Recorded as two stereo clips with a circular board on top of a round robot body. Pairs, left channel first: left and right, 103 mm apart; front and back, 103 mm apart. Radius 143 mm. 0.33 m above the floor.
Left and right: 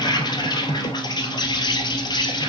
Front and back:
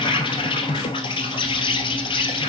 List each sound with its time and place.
0.0 s an insect: 40° left, 1.2 m